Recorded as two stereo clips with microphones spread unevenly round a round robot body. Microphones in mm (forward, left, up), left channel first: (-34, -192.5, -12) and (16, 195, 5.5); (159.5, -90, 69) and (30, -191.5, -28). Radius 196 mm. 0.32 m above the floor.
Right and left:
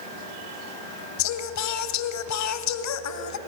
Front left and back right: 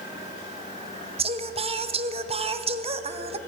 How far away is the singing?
About 1.2 m.